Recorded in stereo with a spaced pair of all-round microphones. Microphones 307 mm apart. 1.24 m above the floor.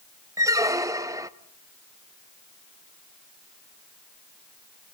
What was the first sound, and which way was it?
A squeak, 10° right (ahead or behind).